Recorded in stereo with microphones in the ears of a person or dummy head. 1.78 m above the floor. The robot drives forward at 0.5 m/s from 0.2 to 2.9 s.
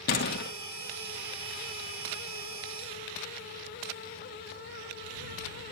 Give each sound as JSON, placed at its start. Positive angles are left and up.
{"t": 0.1, "sound": "a door slam", "side_deg": 55, "distance_m": 1.7}